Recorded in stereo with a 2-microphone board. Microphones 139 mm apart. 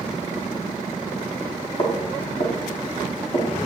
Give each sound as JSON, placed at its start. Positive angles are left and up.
{"t": 1.8, "sound": "footsteps", "side_deg": 45, "distance_m": 9.0}